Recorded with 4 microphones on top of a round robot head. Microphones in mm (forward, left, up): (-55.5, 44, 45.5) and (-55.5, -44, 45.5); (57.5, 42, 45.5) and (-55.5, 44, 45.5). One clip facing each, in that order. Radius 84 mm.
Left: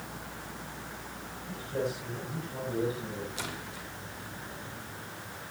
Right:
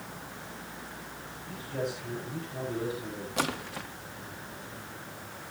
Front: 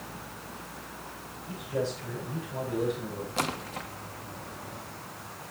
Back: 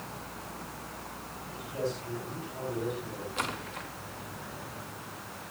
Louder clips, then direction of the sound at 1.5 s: Left 1 dB, front 3 dB; 20° left.